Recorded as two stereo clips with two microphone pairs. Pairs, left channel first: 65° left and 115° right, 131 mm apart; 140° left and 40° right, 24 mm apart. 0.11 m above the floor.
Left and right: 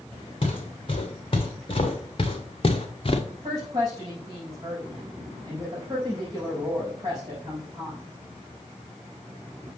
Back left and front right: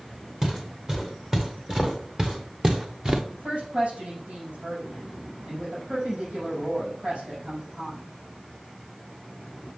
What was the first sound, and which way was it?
Footsteps, 20° left.